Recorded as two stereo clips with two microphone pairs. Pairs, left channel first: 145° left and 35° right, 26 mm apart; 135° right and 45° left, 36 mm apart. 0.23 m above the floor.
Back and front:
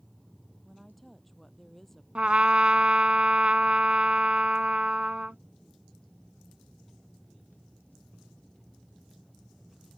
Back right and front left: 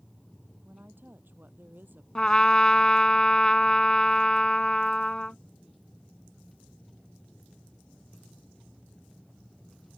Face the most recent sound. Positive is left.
turn(degrees=-70)